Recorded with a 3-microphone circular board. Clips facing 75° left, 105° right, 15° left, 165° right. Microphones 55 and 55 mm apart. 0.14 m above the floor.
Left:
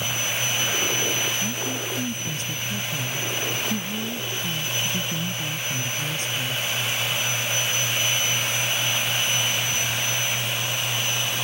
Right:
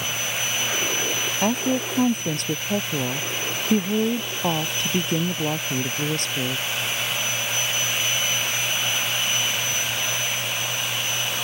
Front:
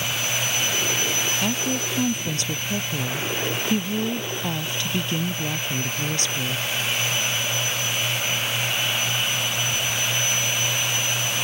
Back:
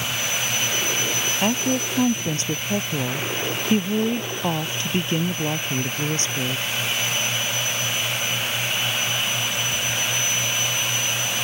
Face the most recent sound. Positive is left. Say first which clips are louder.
# right 6 dB, back 3 dB
turn(degrees=-105)